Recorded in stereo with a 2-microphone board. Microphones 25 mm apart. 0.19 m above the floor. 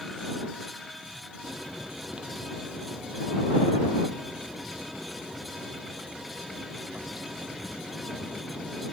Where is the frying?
45° right (ahead or behind).